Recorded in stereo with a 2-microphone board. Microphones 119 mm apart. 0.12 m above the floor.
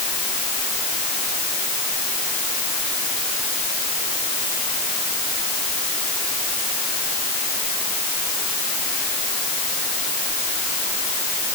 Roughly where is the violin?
No violin in this recording.